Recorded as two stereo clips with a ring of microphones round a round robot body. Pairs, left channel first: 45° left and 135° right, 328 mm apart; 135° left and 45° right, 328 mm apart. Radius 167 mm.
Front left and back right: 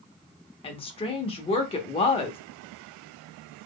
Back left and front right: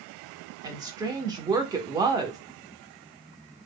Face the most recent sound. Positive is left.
turn(degrees=10)